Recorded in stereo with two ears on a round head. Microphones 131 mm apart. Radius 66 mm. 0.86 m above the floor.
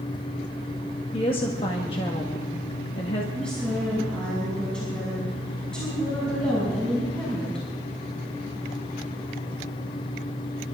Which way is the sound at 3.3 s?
5° left (ahead or behind).